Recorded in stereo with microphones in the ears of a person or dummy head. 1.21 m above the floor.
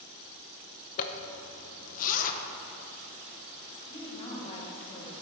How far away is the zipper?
About 0.7 m.